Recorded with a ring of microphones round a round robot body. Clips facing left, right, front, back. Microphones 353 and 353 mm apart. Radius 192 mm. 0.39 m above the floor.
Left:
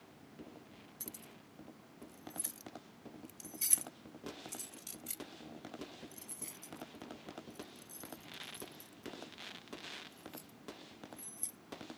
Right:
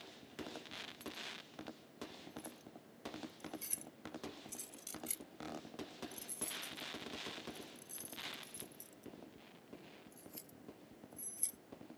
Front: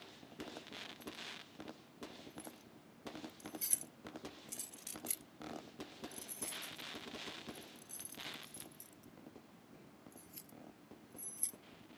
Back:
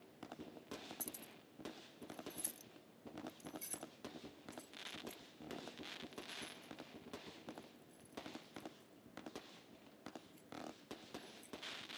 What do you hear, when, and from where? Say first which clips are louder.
1.0 s keys jangling: right 3 dB, front 2 dB; 145° left; by 11.6 s 15° right